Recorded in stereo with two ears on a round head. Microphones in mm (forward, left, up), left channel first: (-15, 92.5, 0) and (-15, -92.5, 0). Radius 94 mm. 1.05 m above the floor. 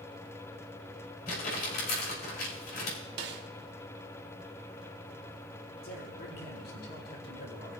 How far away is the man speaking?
About 3 m.